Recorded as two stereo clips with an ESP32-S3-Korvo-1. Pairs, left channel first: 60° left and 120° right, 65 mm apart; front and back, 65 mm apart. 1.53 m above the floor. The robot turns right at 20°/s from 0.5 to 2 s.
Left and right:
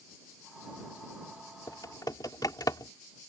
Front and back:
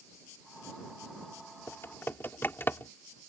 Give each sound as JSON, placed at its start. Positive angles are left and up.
{"t": 1.7, "sound": "typing on a keyboard", "azimuth_deg": 45}